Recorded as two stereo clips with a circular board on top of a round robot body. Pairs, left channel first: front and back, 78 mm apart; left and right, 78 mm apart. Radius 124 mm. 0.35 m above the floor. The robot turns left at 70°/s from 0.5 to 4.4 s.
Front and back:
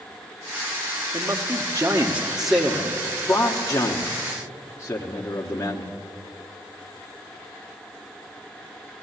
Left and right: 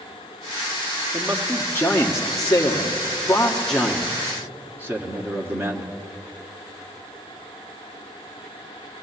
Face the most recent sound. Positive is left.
turn(degrees=-45)